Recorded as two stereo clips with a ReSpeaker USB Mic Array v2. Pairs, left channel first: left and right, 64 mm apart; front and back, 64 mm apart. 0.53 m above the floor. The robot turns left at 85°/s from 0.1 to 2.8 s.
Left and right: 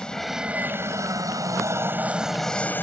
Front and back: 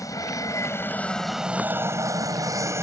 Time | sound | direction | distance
0.0 | an aircraft | 15° left | ?